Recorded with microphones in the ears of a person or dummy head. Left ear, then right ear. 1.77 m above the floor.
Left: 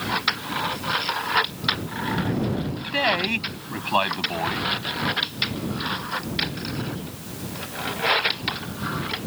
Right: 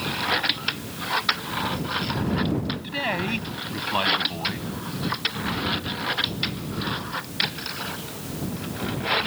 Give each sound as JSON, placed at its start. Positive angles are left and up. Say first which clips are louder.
{"t": 2.8, "sound": "a man speaking", "louder": "left 6 dB", "side_deg": 25}